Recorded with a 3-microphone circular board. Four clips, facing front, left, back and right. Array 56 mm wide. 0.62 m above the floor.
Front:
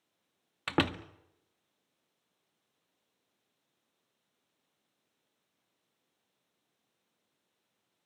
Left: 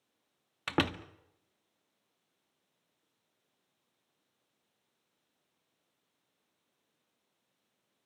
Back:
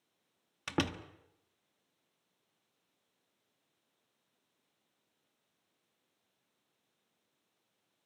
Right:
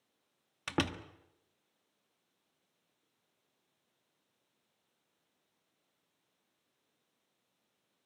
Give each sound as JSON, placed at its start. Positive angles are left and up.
{"t": 0.7, "sound": "a door slam", "azimuth_deg": 30, "distance_m": 0.7}